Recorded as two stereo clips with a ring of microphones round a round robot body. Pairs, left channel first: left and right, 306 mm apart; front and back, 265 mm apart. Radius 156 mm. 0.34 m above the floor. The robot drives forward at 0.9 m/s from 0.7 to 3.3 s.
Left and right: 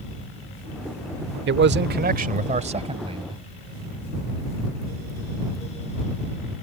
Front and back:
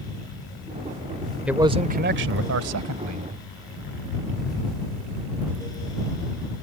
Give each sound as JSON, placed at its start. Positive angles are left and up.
{"t": 1.5, "sound": "a man speaking", "azimuth_deg": -95}